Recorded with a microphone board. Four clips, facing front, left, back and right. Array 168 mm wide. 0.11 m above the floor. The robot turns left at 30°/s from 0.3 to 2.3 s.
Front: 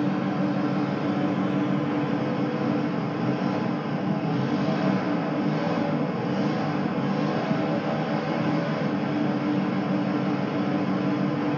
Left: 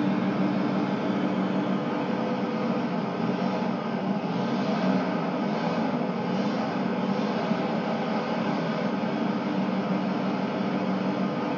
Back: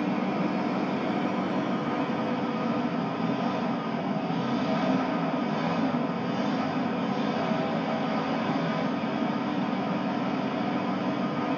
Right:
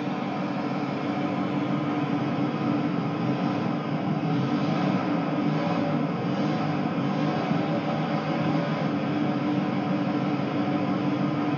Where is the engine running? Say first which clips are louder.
Left 3 dB, front 2 dB; 35° left, 2.5 m; by 11.6 s 25° right, 2.5 m.